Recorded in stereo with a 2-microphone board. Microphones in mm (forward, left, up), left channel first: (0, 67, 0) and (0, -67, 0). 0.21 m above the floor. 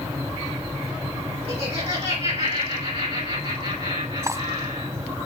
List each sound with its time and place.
1.5 s laughter: 55° right (ahead or behind), 2.5 m
4.2 s cutlery clinking: 25° right (ahead or behind), 0.6 m